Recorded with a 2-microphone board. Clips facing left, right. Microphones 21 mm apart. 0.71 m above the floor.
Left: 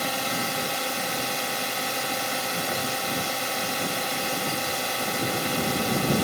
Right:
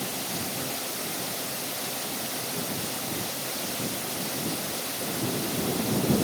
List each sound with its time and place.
0.0 s a drone: 70° left (ahead or behind)